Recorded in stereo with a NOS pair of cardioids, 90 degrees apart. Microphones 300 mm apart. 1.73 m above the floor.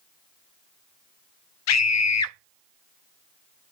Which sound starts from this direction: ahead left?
A scream, at 1.7 s.